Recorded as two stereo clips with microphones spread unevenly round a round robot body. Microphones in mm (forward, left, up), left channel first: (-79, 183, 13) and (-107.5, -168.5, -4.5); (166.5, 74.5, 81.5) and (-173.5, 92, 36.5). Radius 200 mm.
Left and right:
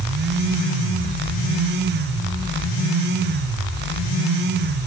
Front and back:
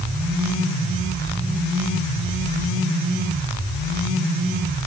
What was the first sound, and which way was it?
Only background noise.